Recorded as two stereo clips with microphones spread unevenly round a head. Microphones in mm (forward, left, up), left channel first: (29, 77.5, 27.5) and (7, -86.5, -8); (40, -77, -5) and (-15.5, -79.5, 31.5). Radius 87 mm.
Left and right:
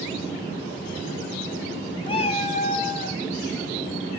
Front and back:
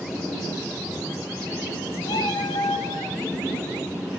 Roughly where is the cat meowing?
Ahead left.